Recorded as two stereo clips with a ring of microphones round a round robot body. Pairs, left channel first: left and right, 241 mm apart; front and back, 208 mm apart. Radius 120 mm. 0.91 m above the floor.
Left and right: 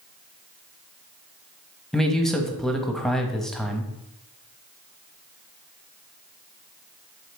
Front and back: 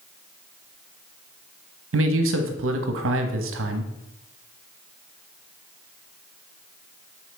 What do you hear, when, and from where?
1.9 s a man speaking: straight behind, 0.9 m